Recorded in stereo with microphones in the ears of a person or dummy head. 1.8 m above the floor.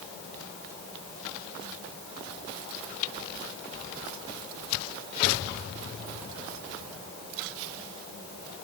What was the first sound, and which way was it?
Only background noise.